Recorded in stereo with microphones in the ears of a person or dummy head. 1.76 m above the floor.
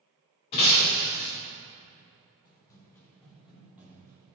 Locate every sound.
0.5 s breaking glass: 20° left (ahead or behind), 1.2 m
2.5 s running footsteps: 20° left (ahead or behind), 2 m; by 4.3 s 20° right (ahead or behind), 2.5 m